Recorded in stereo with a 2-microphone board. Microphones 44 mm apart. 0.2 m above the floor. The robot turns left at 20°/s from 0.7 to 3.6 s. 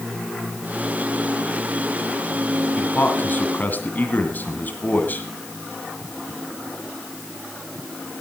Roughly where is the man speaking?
Left.